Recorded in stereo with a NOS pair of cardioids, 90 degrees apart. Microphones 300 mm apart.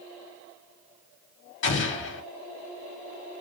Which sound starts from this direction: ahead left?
An explosion, at 1.6 s.